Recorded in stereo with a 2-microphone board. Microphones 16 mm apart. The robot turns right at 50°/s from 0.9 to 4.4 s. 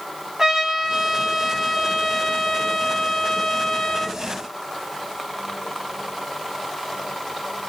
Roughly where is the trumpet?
Ahead right.